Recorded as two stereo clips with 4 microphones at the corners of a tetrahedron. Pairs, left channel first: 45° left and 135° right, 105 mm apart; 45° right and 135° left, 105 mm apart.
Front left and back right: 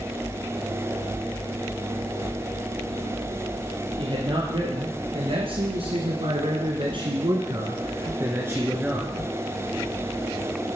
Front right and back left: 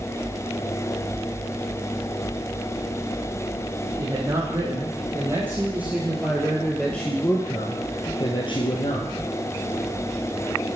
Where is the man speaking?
170° right, 4 m; by 9.1 s 55° right, 2.5 m.